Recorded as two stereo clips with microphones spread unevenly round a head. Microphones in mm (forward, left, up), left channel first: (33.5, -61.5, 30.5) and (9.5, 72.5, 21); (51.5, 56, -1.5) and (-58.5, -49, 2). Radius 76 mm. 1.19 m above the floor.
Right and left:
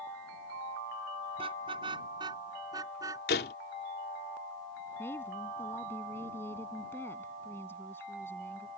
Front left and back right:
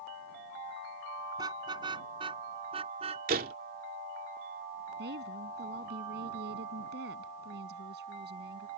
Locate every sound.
1.4 s a car horn: 160° left; by 3.2 s 170° left
3.3 s a door slam: 100° right
5.0 s a woman speaking: 155° right